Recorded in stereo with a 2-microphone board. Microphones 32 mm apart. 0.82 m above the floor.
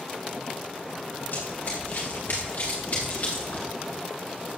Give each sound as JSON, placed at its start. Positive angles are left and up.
{"t": 1.3, "sound": "running footsteps", "side_deg": 70, "distance_m": 6.5}